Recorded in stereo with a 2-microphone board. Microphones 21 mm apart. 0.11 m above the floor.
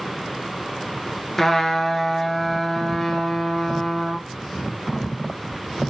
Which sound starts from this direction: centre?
A trumpet, at 1.4 s.